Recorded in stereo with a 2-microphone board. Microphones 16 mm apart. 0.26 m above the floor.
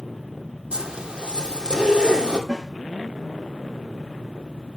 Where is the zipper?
85° right, 2.5 m.